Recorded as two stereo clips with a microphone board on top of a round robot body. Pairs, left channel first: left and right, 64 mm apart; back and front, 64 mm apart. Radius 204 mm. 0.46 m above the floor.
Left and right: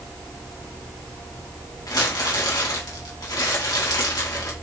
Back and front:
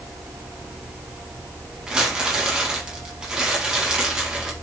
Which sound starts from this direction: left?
Crumpling, at 1.9 s.